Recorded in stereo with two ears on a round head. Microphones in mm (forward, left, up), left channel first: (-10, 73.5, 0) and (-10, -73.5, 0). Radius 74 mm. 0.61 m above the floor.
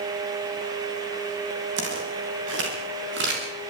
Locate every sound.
1.8 s footsteps: 80° right, 9.5 m; by 3.4 s 75° right (ahead or behind), 11 m